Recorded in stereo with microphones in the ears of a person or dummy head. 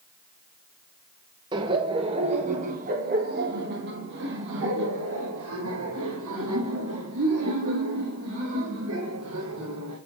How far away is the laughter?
About 1.9 m.